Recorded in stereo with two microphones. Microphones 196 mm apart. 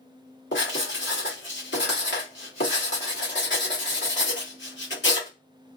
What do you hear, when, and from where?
0.5 s writing: 70° left (ahead or behind), 1.3 m